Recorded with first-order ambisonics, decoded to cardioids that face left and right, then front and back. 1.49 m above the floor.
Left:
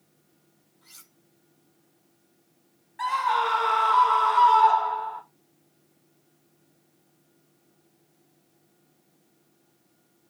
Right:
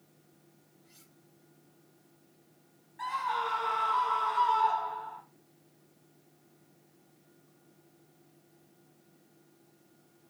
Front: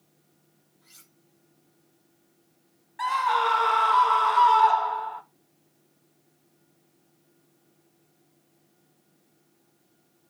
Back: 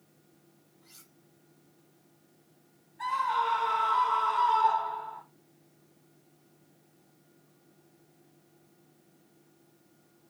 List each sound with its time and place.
0.8 s cutlery clinking: 85° left, 5 m
3.0 s a scream: 25° left, 1.7 m